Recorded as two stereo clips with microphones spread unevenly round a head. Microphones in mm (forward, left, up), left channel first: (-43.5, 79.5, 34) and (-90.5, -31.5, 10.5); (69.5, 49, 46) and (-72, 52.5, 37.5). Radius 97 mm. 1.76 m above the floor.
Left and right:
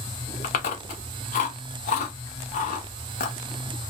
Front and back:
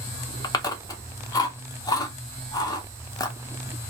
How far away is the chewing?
About 0.6 m.